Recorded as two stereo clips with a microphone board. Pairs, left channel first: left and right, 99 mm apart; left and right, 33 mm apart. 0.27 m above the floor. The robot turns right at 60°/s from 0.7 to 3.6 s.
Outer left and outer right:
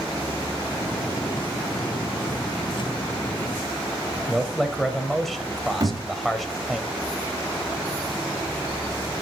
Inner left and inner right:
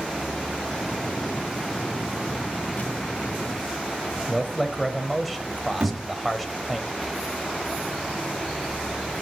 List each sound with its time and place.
4.3 s a man speaking: centre (ahead or behind), 1.0 m
5.8 s a thud: 35° right (ahead or behind), 3 m